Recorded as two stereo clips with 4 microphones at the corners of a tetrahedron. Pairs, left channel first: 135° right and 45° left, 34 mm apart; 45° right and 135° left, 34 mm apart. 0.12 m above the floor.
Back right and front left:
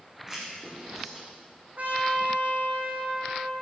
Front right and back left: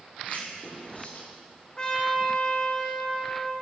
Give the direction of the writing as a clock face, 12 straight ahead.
1 o'clock.